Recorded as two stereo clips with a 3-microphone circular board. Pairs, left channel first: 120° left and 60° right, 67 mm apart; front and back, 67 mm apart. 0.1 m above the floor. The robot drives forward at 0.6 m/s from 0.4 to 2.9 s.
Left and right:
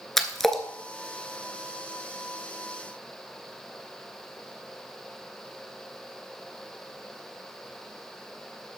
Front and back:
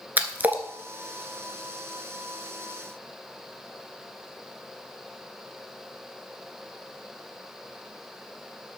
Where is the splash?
160° right, 1.2 m; by 0.6 s 165° right, 1.2 m.